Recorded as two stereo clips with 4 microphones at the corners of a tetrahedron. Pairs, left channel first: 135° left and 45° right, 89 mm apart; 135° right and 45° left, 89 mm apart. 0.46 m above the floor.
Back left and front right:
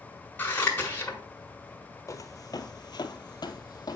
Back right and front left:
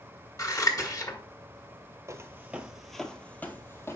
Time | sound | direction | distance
0.4 | scissors | 165° right | 1.6 m
2.1 | footsteps | 90° left | 0.7 m